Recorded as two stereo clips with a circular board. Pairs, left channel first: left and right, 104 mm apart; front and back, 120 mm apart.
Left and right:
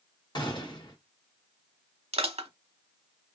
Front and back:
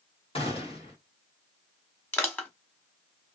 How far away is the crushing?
About 0.9 m.